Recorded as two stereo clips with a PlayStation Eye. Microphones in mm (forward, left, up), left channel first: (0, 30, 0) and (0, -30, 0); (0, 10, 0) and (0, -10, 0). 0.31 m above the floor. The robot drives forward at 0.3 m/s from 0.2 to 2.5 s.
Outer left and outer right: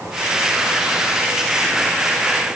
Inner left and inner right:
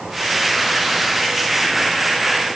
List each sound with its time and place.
Only background noise.